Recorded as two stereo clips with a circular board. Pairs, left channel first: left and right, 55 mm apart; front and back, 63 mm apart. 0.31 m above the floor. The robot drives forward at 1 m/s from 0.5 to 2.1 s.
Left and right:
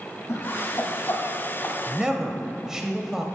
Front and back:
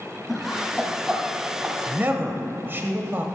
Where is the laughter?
85° left, 2 m; by 1.8 s 125° left, 2.5 m.